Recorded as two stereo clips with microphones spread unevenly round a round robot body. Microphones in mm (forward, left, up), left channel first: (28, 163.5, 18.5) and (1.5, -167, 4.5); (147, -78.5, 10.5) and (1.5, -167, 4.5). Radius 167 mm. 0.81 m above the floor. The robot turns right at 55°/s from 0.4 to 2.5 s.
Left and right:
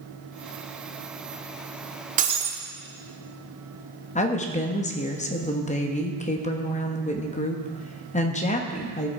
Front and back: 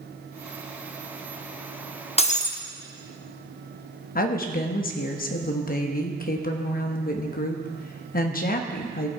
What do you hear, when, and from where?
2.2 s breaking glass: 25° right, 1.0 m; by 2.6 s 10° right, 1.0 m
4.2 s a woman speaking: 20° left, 1.1 m